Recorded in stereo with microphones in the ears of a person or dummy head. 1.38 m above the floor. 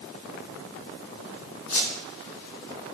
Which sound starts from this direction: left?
A squeak, at 1.7 s.